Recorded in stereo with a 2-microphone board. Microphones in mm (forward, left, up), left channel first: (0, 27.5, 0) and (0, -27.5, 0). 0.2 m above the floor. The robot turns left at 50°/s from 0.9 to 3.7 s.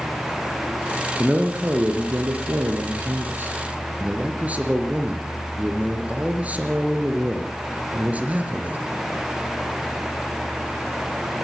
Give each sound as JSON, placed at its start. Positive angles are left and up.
{"t": 1.2, "sound": "a man speaking", "azimuth_deg": -25, "distance_m": 4.0}